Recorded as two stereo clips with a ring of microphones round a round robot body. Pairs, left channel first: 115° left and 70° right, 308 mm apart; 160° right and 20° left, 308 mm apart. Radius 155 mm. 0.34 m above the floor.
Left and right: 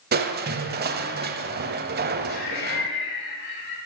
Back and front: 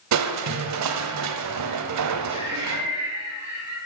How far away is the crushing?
About 0.9 m.